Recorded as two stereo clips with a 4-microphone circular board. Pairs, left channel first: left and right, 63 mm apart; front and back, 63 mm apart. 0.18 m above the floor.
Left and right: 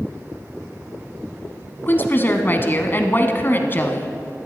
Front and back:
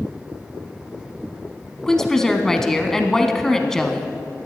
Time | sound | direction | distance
1.9 | a woman speaking | 75° left | 1.1 m